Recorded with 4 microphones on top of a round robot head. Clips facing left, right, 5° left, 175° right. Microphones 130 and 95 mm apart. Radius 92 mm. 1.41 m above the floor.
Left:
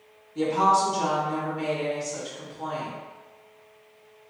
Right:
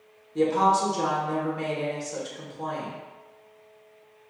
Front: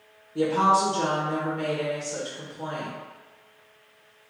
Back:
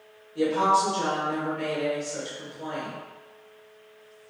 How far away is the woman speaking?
About 1.4 m.